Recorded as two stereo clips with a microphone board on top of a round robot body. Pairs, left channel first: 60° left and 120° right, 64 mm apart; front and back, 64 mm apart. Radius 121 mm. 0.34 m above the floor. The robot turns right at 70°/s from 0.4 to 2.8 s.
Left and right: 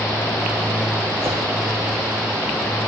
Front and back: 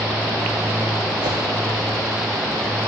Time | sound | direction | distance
1.2 | a whoosh | 175° right | 4 m